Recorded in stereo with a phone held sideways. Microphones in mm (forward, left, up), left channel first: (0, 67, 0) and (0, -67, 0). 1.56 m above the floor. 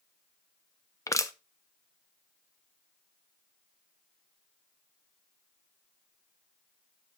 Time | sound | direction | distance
1.1 | crushing | 20° left (ahead or behind) | 0.6 m